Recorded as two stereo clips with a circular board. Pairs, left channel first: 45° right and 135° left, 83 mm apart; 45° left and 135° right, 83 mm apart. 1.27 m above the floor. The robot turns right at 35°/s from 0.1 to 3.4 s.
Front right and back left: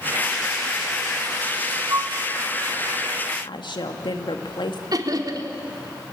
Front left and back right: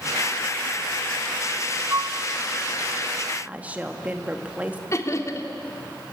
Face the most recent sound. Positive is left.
turn(degrees=95)